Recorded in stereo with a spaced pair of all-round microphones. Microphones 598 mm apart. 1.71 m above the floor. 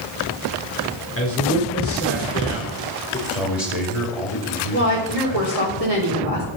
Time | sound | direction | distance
1.2 | a man speaking | 20° left (ahead or behind) | 4.5 m
3.3 | a man speaking | 80° left | 3.5 m
4.7 | a woman speaking | 75° right (ahead or behind) | 5.5 m